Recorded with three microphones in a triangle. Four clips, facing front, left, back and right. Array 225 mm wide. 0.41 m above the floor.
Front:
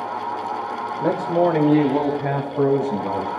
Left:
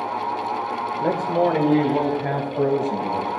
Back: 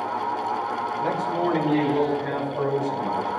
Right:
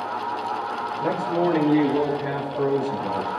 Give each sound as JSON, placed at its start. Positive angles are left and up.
{"t": 1.0, "sound": "a man speaking", "azimuth_deg": 30, "distance_m": 1.4}